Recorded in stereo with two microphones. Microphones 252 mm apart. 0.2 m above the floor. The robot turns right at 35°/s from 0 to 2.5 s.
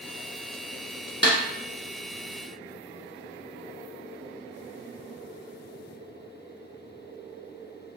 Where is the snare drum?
45° right (ahead or behind), 1.2 m; by 1.4 s 50° right (ahead or behind), 1.2 m.